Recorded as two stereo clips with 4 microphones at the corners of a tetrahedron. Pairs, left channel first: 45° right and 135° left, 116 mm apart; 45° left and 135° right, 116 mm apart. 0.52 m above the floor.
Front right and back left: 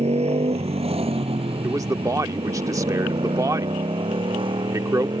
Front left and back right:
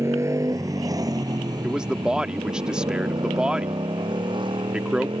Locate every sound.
0.0 s a motorcycle: 160° left; by 5.2 s straight behind
1.6 s a man speaking: 150° left